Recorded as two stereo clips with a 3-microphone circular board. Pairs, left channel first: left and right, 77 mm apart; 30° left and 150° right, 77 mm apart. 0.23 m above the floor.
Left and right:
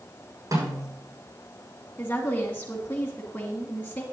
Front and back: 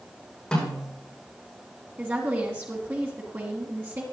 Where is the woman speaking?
155° left, 1.8 m.